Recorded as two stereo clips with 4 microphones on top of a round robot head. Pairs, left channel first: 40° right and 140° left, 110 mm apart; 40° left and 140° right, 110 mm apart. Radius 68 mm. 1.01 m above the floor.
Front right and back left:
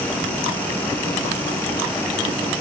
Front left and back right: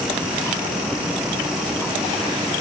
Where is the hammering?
I don't hear hammering.